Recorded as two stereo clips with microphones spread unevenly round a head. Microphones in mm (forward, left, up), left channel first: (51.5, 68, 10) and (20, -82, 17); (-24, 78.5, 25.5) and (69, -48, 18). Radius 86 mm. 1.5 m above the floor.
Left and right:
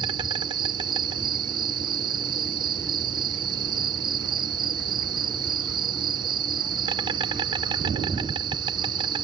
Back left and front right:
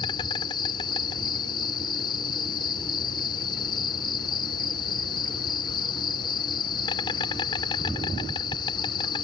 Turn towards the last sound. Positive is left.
turn(degrees=-170)